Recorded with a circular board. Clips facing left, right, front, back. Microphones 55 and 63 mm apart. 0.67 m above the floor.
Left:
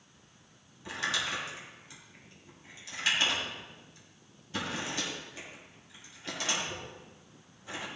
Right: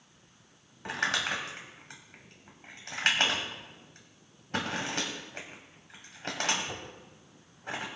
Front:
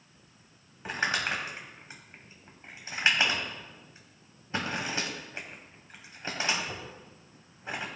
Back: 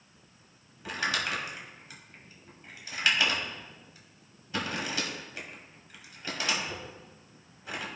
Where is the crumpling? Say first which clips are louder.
Right 3 dB, front 1 dB; 55° right, 2.5 m.